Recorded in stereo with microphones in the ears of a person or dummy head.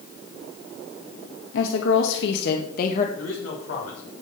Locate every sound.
1.5 s a woman speaking: 80° left, 2.0 m; by 3.1 s 50° left (ahead or behind), 1.8 m
3.2 s a man speaking: 80° left, 7 m